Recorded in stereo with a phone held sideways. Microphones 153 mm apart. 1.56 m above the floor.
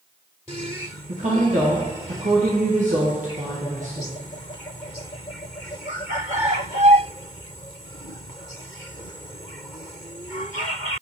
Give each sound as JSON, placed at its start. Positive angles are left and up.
{"t": 1.1, "sound": "a woman speaking", "side_deg": -55, "distance_m": 0.7}